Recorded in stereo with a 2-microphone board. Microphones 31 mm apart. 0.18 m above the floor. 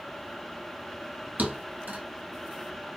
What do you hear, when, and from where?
1.4 s a thud: 65° right (ahead or behind), 1.1 m